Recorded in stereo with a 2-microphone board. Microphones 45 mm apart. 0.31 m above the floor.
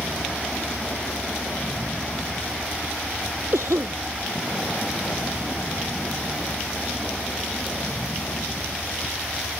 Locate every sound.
0.0 s a vehicle: 55° left (ahead or behind)
3.5 s a cough: 75° right (ahead or behind)